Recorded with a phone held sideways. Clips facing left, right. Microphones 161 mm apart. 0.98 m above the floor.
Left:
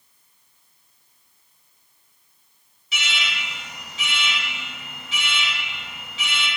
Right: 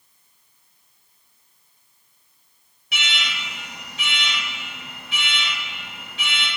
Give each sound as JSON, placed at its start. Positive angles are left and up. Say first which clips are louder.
{"t": 2.9, "sound": "an alarm", "louder": "even", "side_deg": -60, "distance_m": 2.0}